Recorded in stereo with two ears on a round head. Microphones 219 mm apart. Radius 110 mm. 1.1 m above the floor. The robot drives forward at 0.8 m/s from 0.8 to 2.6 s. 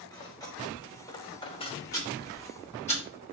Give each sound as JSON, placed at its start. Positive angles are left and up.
{"t": 0.1, "sound": "cutlery clinking", "side_deg": 15, "distance_m": 1.8}
{"t": 1.9, "sound": "ticking", "side_deg": 15, "distance_m": 3.0}